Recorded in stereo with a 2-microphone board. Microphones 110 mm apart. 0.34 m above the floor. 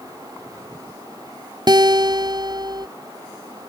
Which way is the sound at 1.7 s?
40° right (ahead or behind).